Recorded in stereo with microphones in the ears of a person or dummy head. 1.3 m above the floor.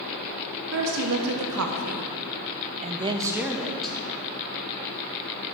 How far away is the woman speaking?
About 1.5 m.